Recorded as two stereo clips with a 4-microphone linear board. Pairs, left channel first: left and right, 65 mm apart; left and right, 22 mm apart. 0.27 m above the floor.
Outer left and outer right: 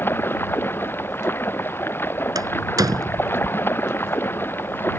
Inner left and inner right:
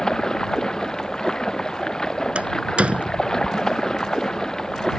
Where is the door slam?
70° right (ahead or behind).